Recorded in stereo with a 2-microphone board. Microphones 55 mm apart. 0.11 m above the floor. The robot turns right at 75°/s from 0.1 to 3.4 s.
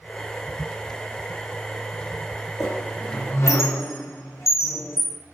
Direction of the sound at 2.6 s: 5° right (ahead or behind).